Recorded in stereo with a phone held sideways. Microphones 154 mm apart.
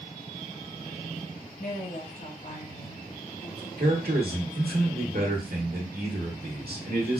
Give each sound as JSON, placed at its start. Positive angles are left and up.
{"t": 1.6, "sound": "a woman speaking", "side_deg": 75, "distance_m": 1.3}
{"t": 3.8, "sound": "a man speaking", "side_deg": -80, "distance_m": 1.2}